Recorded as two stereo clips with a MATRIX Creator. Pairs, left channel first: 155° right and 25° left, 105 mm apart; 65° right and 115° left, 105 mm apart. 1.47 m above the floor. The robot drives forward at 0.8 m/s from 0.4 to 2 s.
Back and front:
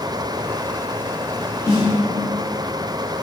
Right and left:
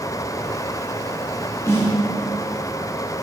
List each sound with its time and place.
1.7 s a snare drum: 115° right, 1.4 m; by 2.0 s 125° right, 1.5 m